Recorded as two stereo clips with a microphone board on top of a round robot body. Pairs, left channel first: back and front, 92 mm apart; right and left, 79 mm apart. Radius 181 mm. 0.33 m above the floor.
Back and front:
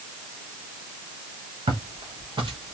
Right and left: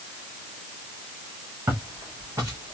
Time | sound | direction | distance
1.7 | footsteps | 30° left | 4 m